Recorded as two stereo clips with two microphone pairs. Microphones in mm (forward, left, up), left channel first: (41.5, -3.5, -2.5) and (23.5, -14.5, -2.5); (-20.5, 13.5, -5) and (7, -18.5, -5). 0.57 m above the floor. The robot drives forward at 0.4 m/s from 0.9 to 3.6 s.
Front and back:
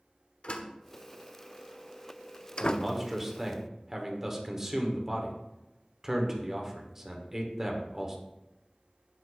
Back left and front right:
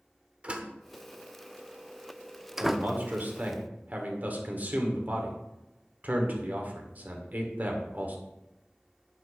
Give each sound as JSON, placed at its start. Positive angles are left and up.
{"t": 0.4, "sound": "a door slam", "azimuth_deg": 10, "distance_m": 1.1}
{"t": 2.6, "sound": "a man speaking", "azimuth_deg": -70, "distance_m": 2.0}